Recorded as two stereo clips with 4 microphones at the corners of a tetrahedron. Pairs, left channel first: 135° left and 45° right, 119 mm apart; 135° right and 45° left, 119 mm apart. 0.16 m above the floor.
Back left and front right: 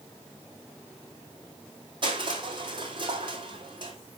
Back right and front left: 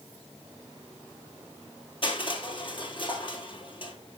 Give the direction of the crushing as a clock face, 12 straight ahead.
3 o'clock.